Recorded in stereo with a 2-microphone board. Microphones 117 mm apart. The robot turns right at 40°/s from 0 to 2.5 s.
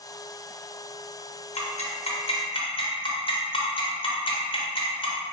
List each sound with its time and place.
1.6 s ticking: 70° left (ahead or behind), 0.5 m; by 5.2 s 50° left (ahead or behind), 0.5 m